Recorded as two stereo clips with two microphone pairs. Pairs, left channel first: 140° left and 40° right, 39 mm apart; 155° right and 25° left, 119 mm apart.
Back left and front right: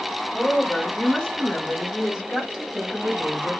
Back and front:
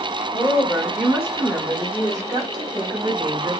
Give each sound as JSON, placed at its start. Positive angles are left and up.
{"t": 0.3, "sound": "a woman speaking", "azimuth_deg": 135, "distance_m": 1.4}